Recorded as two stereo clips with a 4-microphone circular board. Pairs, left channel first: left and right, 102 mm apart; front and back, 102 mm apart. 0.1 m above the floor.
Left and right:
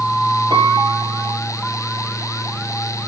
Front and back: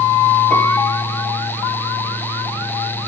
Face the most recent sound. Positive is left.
turn(degrees=-70)